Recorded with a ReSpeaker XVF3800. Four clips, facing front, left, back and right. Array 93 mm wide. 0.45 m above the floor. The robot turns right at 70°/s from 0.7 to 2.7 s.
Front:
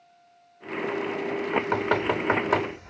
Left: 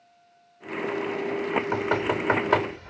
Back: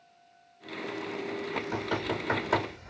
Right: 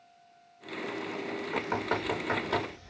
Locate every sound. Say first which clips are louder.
1.5 s knocking: left 5 dB, front 9 dB; 10° right, 0.8 m; by 2.9 s 75° left, 0.8 m